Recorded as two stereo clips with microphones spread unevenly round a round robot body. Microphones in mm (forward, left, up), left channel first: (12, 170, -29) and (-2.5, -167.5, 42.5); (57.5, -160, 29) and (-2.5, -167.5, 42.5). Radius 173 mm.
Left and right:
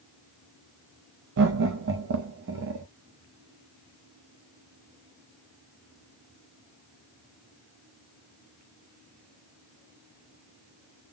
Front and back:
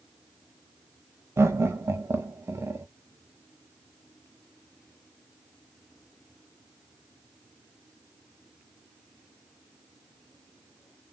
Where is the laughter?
140° right, 0.8 m.